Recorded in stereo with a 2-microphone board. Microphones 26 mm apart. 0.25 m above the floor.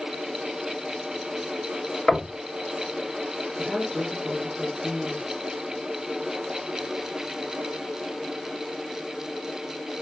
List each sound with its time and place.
2.1 s knocking: 20° left (ahead or behind), 1.3 m
3.6 s a woman speaking: 20° right (ahead or behind), 3 m